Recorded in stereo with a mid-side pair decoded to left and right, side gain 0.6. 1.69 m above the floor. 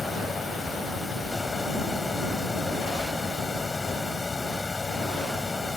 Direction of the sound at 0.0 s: 15° left.